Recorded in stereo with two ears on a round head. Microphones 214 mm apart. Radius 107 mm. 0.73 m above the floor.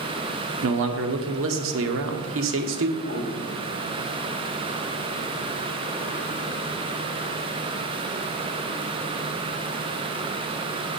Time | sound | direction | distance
0.6 | a man speaking | 55° right (ahead or behind) | 1.3 m
3.0 | a piano | 50° right (ahead or behind) | 4 m